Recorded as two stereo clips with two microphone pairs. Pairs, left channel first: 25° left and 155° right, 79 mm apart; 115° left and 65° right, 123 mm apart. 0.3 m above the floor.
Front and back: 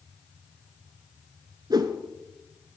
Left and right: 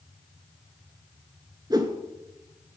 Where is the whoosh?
125° right, 0.6 m.